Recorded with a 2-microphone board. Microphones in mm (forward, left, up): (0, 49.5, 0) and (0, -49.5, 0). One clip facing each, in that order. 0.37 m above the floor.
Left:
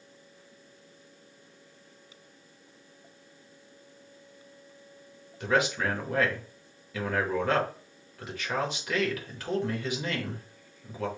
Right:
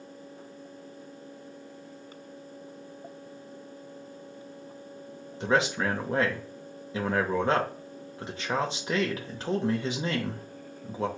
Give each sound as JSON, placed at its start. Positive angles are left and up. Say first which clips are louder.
{"t": 5.4, "sound": "a man speaking", "louder": "right 1 dB", "side_deg": -30, "distance_m": 0.9}